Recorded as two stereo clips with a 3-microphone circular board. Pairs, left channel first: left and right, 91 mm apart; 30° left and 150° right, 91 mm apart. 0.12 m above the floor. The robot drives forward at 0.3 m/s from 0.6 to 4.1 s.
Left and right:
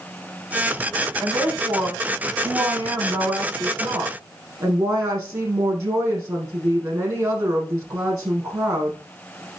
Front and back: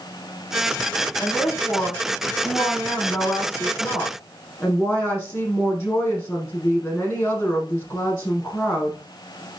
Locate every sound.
1.2 s a woman speaking: 35° right, 6 m; by 9.0 s 40° right, 5.5 m